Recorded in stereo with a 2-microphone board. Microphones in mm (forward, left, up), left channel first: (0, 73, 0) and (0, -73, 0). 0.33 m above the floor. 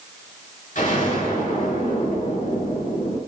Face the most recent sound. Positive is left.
turn(degrees=70)  # may be behind; listen again after turning